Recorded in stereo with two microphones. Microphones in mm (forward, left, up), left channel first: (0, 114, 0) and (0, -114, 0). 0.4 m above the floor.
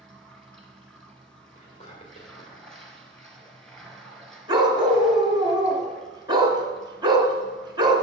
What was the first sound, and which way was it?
Running water, centre (ahead or behind).